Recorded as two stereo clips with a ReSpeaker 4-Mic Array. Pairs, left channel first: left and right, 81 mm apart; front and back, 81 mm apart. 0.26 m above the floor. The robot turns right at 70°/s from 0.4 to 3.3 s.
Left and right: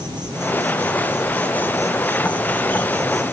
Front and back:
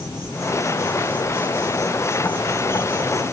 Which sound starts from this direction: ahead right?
An insect, at 0.0 s.